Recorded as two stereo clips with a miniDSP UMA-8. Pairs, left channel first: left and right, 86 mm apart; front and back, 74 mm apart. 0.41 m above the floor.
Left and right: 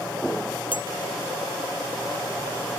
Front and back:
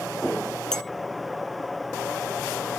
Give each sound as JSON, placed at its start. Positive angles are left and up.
{"t": 0.7, "sound": "a clink", "azimuth_deg": 80}